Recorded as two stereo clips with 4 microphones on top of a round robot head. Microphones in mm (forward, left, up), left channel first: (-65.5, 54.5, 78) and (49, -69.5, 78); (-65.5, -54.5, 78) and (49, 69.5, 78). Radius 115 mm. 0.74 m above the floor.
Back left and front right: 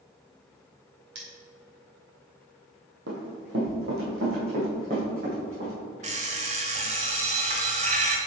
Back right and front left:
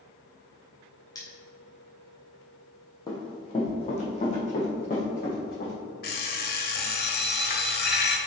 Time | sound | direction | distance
1.1 | cutlery clinking | 60° right | 2.5 m
3.1 | running footsteps | 60° right | 2 m
6.0 | an alarm clock | 100° right | 1.2 m